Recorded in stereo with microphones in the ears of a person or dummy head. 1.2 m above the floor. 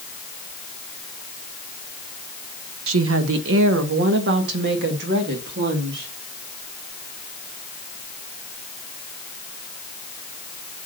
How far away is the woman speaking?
About 0.9 m.